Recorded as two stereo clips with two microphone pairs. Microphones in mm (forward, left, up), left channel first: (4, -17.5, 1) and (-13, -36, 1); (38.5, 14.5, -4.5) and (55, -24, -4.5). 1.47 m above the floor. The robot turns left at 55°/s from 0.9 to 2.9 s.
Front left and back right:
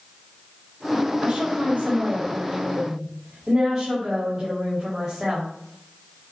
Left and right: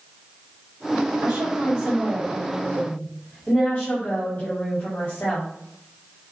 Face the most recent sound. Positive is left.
turn(degrees=170)